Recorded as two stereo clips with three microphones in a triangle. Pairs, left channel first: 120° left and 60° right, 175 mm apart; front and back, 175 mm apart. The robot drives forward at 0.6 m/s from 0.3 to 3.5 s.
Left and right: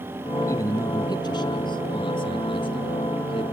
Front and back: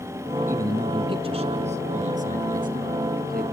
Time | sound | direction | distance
0.5 | a man speaking | 140° left | 1.1 m